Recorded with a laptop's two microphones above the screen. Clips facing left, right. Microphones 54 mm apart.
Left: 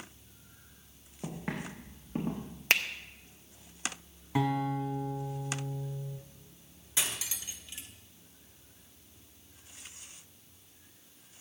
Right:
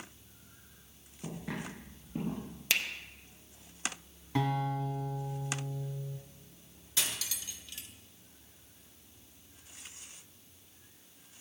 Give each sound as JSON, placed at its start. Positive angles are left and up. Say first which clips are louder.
{"t": 1.2, "sound": "footsteps", "louder": "left 2 dB", "side_deg": 60, "distance_m": 5.5}
{"t": 2.7, "sound": "a finger snap", "louder": "left 5 dB", "side_deg": 45, "distance_m": 0.8}
{"t": 4.3, "sound": "a guitar", "louder": "left 2 dB", "side_deg": 10, "distance_m": 2.5}
{"t": 7.0, "sound": "cutlery clinking", "louder": "left 1 dB", "side_deg": 25, "distance_m": 0.8}